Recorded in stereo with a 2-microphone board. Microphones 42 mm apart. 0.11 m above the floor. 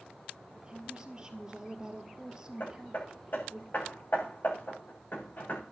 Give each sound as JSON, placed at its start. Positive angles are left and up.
{"t": 0.6, "sound": "a woman speaking", "side_deg": -20, "distance_m": 1.9}
{"t": 2.6, "sound": "hammering", "side_deg": 50, "distance_m": 9.0}